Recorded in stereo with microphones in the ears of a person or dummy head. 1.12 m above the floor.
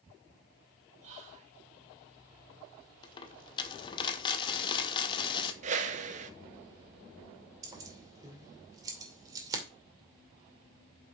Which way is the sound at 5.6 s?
40° right (ahead or behind).